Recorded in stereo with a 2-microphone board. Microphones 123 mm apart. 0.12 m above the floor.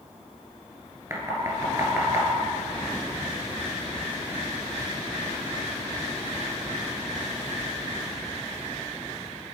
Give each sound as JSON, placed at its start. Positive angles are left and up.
{"t": 1.1, "sound": "knocking", "side_deg": -20, "distance_m": 1.5}